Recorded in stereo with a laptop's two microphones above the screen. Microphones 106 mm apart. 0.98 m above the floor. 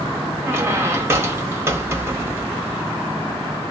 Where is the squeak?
25° right (ahead or behind), 1.5 m.